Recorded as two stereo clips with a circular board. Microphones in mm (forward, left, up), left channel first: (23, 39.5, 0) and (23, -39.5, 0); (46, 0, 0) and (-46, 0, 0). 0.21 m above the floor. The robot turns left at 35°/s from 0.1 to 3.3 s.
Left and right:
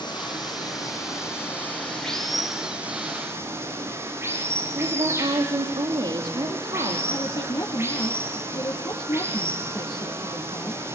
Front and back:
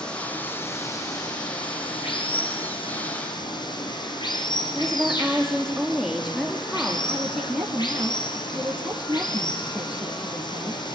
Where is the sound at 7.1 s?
100° left, 3.5 m.